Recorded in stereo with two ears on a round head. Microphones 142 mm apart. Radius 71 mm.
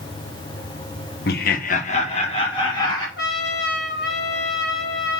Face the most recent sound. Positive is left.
turn(degrees=70)  # may be behind; listen again after turning